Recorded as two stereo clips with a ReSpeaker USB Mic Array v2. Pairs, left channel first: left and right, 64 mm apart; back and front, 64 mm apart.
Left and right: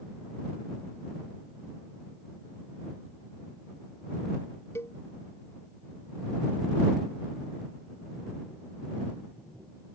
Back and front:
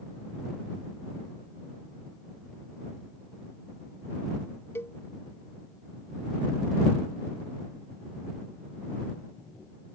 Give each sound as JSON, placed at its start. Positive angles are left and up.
{"t": 4.8, "sound": "a cowbell", "azimuth_deg": 135}